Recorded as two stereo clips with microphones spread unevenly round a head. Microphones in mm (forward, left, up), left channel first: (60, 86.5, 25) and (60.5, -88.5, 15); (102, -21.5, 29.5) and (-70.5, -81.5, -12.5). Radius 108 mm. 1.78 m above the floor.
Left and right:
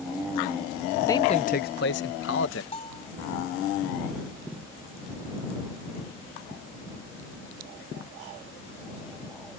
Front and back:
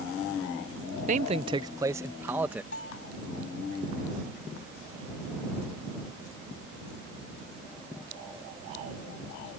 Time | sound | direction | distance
1.1 | a man speaking | 155° left | ?
2.7 | a bell | 35° left | ?